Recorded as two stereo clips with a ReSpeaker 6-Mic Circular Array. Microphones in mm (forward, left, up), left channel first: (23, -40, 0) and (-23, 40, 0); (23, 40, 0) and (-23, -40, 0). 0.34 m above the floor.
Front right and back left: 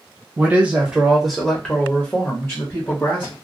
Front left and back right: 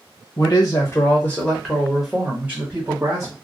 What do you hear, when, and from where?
0.4 s a man speaking: 60° left, 1.3 m; by 3.3 s 85° right, 1.4 m